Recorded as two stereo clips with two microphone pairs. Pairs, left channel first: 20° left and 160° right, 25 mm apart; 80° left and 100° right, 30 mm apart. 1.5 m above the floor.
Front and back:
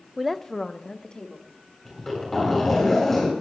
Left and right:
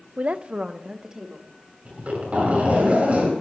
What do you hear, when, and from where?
0.2 s a woman speaking: 90° right, 0.6 m; by 1.5 s 30° right, 2.5 m
1.9 s a zipper: 55° right, 8 m